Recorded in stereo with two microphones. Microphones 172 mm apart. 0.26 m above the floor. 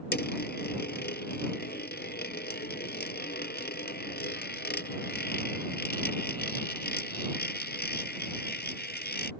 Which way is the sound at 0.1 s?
80° left.